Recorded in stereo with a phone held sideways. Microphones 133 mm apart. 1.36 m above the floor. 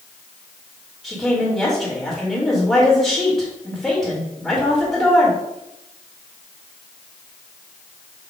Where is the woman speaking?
5° left (ahead or behind), 2 m.